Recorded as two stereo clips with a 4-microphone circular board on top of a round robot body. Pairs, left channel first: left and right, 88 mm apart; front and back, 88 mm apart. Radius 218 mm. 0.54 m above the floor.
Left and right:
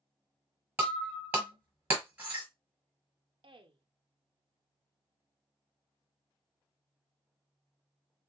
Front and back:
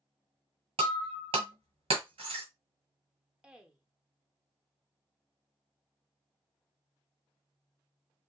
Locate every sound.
0.8 s breaking glass: 165° right, 1.5 m
3.4 s a woman speaking: 100° right, 1.1 m